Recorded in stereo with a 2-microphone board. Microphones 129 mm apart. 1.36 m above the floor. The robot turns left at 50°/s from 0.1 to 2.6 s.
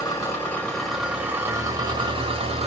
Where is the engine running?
40° left, 1.5 m; by 2.7 s 85° right, 1.5 m.